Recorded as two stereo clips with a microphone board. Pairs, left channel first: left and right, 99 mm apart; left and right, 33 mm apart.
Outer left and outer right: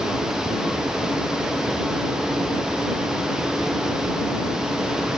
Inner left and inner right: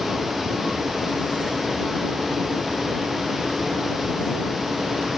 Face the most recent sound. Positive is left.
No sound to turn to.